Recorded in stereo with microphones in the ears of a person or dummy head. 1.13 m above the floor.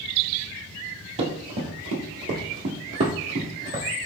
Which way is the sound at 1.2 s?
30° right (ahead or behind).